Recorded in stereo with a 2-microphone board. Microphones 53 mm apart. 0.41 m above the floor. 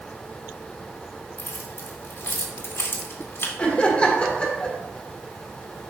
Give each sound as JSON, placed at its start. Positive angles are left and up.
{"t": 1.4, "sound": "keys jangling", "side_deg": 55, "distance_m": 1.5}
{"t": 3.6, "sound": "laughter", "side_deg": 20, "distance_m": 1.3}